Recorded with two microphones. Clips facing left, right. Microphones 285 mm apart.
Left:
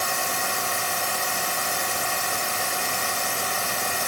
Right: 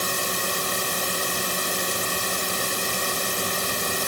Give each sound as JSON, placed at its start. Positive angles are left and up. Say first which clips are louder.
{"t": 0.0, "sound": "a drone", "louder": "right 1 dB", "side_deg": -40}